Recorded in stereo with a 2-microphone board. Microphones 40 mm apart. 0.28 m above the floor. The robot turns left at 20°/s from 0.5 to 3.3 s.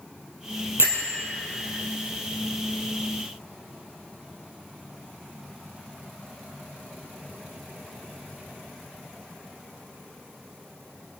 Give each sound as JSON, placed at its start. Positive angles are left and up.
{"t": 0.8, "sound": "a bell", "side_deg": -85, "distance_m": 3.0}